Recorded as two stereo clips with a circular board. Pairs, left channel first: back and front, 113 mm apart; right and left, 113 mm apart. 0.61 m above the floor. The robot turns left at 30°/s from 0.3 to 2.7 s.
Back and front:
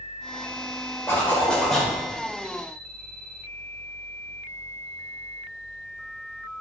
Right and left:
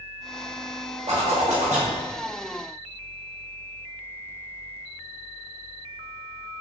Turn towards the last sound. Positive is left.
turn(degrees=65)